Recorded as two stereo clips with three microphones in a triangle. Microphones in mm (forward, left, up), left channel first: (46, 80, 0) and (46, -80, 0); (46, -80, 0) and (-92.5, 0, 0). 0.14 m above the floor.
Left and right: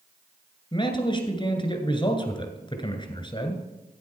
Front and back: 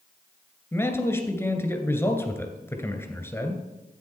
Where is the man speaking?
40° left, 1.9 m.